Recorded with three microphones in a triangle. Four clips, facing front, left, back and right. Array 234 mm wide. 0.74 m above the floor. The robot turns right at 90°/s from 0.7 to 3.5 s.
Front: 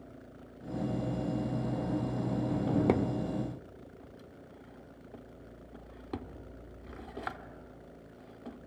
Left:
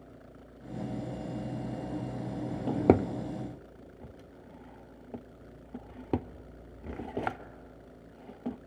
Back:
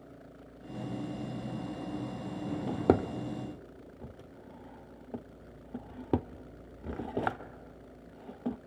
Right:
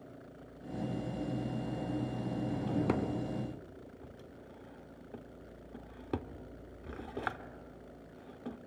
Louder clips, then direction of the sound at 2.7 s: Left 10 dB, back 2 dB; 85° left.